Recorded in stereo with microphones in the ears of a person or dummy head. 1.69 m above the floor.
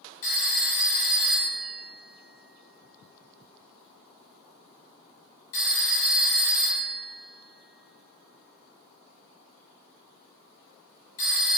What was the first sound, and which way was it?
A phone ringing, 40° left (ahead or behind).